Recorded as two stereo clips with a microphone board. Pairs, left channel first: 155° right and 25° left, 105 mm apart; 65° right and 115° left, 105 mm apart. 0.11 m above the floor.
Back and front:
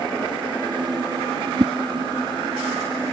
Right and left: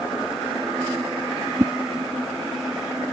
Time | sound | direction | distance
1.6 | a whoosh | 50° left | ?